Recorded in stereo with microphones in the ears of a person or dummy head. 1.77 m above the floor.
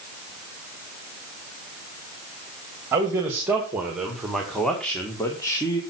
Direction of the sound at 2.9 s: 15° right (ahead or behind).